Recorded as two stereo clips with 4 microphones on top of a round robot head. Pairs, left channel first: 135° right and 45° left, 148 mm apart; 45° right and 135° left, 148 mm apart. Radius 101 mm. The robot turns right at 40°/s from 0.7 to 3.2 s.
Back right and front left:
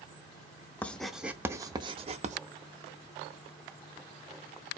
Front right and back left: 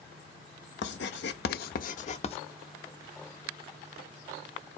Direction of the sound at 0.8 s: 55° right.